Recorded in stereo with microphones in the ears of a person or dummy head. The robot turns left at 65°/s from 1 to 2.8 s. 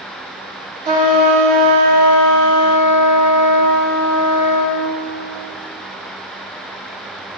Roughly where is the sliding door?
No sliding door in this recording.